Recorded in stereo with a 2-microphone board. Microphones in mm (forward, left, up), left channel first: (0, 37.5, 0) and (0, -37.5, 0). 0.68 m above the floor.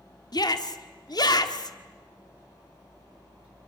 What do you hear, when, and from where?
0.3 s a shout: 60° left (ahead or behind), 1.7 m